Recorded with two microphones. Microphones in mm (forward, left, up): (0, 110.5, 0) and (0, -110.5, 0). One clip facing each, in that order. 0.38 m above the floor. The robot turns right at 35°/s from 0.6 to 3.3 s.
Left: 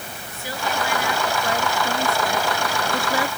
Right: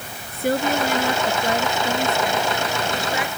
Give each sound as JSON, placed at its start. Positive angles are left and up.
{"t": 0.3, "sound": "a woman speaking", "azimuth_deg": -60}